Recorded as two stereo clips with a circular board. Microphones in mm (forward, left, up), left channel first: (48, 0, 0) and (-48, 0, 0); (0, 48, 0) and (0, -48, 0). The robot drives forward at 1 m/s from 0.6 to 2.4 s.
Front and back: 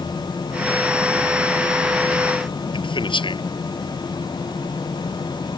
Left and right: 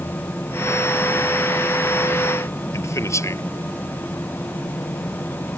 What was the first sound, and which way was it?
A man speaking, 30° left.